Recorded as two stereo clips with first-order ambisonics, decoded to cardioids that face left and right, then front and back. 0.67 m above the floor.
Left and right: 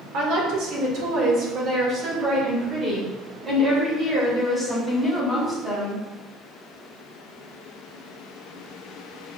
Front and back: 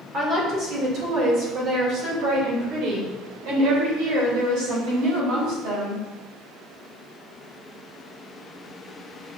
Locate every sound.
0.1 s a woman speaking: 125° right, 2.5 m; by 6.0 s straight behind, 4 m